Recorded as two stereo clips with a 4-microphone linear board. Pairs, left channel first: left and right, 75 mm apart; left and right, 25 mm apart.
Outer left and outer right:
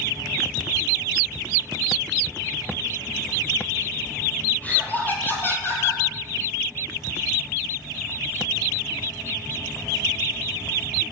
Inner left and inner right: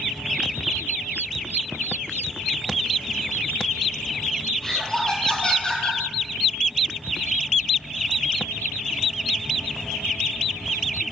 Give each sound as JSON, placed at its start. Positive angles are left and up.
{"t": 4.6, "sound": "laughter", "side_deg": 20, "distance_m": 5.5}